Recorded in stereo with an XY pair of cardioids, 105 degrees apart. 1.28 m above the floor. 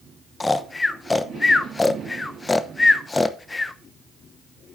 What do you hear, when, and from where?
0.4 s snoring: 20° left, 0.7 m